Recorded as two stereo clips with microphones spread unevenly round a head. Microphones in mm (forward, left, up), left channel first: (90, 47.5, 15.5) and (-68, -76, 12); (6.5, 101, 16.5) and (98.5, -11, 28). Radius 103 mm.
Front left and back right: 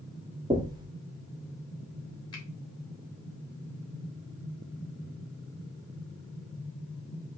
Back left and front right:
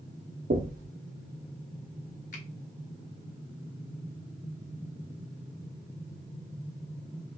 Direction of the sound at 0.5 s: 75° right.